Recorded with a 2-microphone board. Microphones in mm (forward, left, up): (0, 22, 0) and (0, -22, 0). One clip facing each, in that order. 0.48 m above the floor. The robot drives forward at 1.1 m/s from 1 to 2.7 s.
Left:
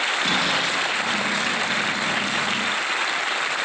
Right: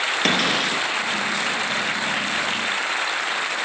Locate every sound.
0.2 s a cupboard door: 65° right (ahead or behind), 7 m